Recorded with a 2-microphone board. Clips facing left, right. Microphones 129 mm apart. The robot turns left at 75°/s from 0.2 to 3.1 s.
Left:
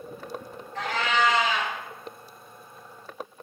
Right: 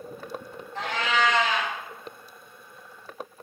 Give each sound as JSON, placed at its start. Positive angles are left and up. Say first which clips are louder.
{"t": 0.8, "sound": "a cat meowing", "louder": "left 1 dB", "azimuth_deg": -145, "distance_m": 1.1}